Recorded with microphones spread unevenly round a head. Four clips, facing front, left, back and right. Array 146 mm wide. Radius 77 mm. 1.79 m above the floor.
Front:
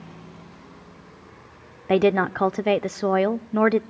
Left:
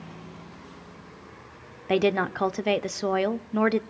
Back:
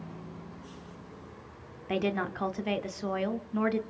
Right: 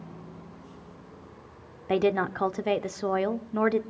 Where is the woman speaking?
15° left, 0.8 m.